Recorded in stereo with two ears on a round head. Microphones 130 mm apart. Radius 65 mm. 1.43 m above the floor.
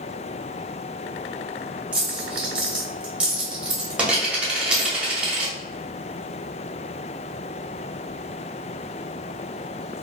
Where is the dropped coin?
10° right (ahead or behind), 1.0 m.